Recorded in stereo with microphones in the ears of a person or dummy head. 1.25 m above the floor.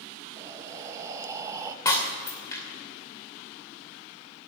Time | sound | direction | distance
0.4 | breathing | 15° right (ahead or behind) | 0.8 m
1.9 | breaking glass | 20° left (ahead or behind) | 2.5 m